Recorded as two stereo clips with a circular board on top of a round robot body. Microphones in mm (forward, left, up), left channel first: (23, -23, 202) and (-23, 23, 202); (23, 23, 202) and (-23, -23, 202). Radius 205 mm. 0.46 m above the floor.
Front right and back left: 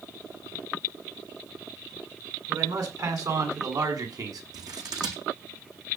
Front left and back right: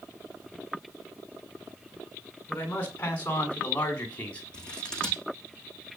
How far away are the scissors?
About 9 m.